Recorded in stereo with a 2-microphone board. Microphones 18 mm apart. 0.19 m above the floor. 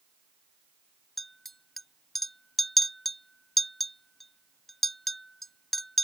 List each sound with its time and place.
1.2 s a clink: 10° left (ahead or behind)